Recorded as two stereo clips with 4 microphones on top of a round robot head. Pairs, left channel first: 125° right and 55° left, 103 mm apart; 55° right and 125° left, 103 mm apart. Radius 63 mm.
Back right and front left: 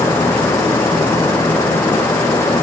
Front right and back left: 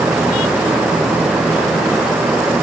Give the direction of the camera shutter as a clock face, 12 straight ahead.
I don't hear a camera shutter.